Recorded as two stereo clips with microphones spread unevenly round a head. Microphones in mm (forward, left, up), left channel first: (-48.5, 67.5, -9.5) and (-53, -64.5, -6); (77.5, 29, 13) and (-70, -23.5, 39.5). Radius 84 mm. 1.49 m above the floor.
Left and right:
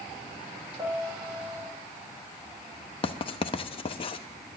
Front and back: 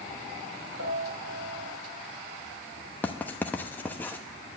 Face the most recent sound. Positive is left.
turn(degrees=105)